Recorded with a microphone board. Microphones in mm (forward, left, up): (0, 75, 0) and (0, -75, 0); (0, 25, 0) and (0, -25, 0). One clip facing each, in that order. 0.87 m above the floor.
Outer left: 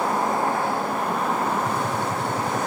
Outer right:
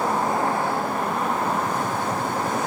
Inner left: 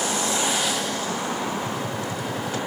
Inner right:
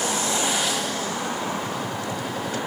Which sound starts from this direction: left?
A gunshot, at 1.6 s.